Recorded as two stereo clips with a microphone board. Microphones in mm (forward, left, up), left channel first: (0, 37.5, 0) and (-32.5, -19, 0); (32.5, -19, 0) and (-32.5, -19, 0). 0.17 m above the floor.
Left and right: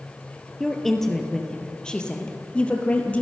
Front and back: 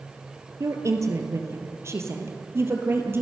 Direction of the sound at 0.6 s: 150° left.